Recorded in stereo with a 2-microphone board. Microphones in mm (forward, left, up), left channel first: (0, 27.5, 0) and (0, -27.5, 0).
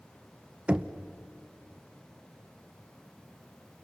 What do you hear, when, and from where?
0.7 s knocking: 20° right (ahead or behind), 0.9 m